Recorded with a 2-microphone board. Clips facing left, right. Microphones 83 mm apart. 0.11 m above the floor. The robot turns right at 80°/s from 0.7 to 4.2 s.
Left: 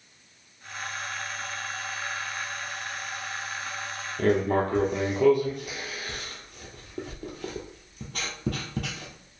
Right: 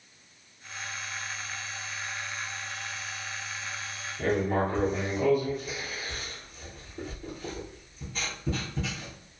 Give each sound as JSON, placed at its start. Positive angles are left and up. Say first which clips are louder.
{"t": 4.2, "sound": "writing", "louder": "left 3 dB", "side_deg": 70, "distance_m": 0.9}